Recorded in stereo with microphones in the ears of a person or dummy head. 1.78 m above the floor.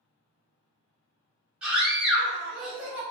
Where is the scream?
10° right (ahead or behind), 1.3 m.